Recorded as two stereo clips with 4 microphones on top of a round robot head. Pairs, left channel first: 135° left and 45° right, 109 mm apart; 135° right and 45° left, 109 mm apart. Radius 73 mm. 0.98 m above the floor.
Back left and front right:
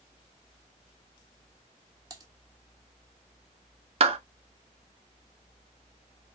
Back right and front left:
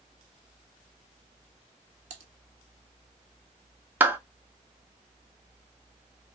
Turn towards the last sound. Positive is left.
turn(degrees=-30)